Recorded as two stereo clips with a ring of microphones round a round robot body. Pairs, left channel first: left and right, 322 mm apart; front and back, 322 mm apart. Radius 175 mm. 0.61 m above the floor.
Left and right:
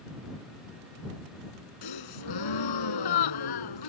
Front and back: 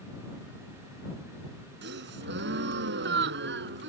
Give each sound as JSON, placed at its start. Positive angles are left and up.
{"t": 1.8, "sound": "a gasp", "azimuth_deg": 120}